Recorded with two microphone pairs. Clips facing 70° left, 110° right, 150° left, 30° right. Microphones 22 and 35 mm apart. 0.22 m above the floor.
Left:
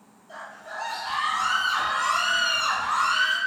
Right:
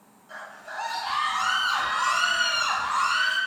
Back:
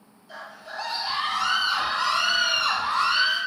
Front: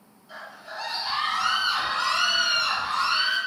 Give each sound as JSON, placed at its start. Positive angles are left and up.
{"t": 0.3, "sound": "a scream", "azimuth_deg": -105, "distance_m": 1.9}